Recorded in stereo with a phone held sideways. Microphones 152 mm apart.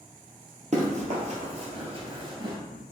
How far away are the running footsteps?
About 1.5 m.